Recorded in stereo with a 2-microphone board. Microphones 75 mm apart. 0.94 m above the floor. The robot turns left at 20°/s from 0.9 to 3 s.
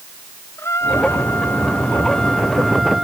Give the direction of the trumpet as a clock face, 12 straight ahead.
11 o'clock.